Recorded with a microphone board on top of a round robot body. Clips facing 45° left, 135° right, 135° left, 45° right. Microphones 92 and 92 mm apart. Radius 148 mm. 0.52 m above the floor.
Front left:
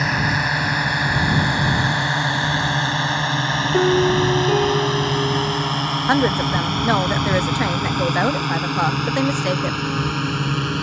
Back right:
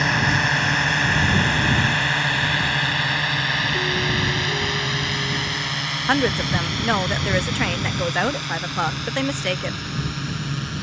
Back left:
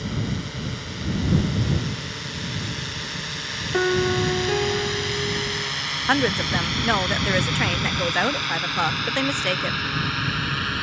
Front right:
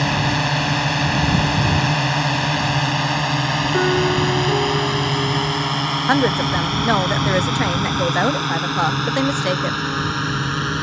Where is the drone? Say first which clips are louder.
Even, front right 9 dB; 40° right; by 10.8 s 20° left.